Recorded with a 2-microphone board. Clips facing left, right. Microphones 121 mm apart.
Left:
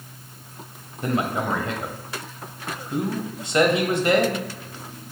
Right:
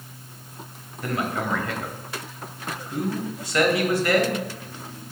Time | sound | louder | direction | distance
1.0 | a man speaking | left 3 dB | 25° left (ahead or behind) | 1.0 m